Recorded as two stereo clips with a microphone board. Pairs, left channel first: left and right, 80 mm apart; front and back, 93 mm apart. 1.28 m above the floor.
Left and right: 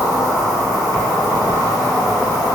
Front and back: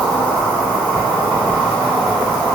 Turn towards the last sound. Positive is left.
turn(degrees=65)